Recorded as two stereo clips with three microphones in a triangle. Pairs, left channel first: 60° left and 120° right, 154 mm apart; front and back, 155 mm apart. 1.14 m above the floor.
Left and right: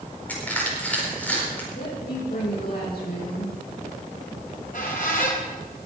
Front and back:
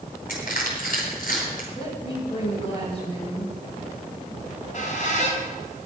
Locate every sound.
0.3 s crushing: 20° right, 4.5 m
1.8 s a woman speaking: 55° left, 6 m
4.4 s a squeak: 35° left, 3 m